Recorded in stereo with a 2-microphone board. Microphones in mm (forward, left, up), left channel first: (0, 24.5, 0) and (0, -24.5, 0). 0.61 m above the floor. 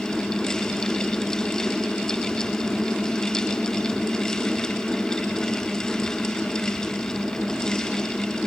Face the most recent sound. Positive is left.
No sound to turn to.